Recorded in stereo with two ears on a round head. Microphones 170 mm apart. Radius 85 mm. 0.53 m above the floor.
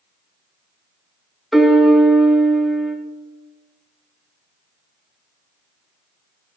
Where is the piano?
Centre (ahead or behind), 0.6 m.